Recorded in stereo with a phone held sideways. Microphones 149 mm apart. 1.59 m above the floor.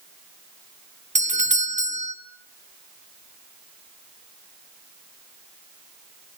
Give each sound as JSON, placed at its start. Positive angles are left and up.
{"t": 1.1, "sound": "a doorbell", "side_deg": -55, "distance_m": 1.8}